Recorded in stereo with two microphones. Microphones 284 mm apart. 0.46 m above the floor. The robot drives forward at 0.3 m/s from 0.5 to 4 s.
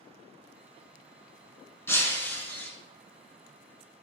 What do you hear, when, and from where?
1.9 s breaking glass: 10° left (ahead or behind), 1.0 m; by 2.7 s 5° left (ahead or behind), 1.2 m